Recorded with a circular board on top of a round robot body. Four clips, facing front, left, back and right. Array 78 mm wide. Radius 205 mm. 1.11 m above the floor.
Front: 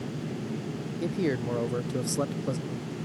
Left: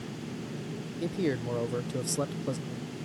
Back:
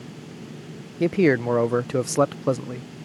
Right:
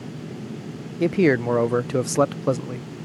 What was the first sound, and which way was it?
A man speaking, 135° right.